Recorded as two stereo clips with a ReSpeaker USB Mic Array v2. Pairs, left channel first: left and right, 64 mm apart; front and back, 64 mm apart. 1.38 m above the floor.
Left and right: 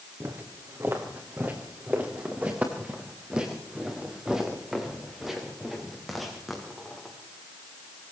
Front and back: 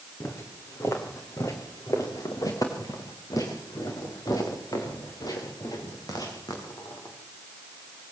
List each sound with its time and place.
0.2 s footsteps: 40° right, 4.5 m; by 7.2 s 5° left, 7.5 m